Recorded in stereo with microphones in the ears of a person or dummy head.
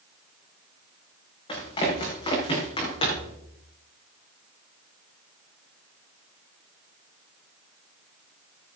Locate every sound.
1.5 s running footsteps: 30° left (ahead or behind), 6 m; by 3.3 s 35° left (ahead or behind), 5 m